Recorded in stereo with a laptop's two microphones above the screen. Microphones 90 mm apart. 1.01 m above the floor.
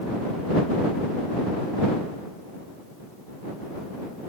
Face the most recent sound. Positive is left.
No sound to turn to.